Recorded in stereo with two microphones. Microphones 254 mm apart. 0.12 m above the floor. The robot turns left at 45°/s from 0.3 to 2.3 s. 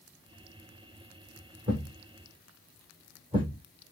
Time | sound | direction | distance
1.7 | a thud | 50° right (ahead or behind) | 3.5 m